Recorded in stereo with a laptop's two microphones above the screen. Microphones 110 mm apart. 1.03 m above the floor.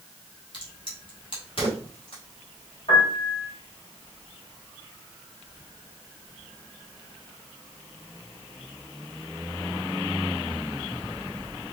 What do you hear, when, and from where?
0.5 s a crack: 50° left (ahead or behind), 1.9 m
2.9 s a piano: 55° left (ahead or behind), 2.5 m